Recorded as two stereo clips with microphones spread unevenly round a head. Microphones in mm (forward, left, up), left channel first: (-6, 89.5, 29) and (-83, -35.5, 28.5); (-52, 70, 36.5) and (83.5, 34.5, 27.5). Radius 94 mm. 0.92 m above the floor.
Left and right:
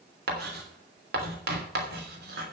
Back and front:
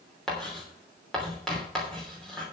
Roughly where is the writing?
Right.